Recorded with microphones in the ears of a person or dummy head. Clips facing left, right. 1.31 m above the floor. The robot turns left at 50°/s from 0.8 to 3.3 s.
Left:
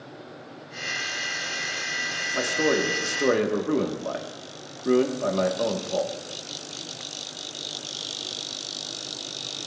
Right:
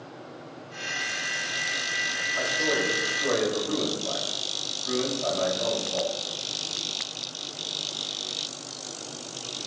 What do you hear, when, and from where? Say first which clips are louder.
2.3 s a man speaking: left 5 dB; 125° left, 1.2 m; by 6.1 s 80° left, 1.2 m